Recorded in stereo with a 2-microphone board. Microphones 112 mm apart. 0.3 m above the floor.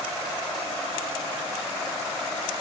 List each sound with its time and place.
Only background noise.